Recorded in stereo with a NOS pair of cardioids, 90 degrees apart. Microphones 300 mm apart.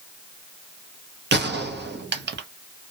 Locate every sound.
1.3 s a gunshot: 35° right, 0.7 m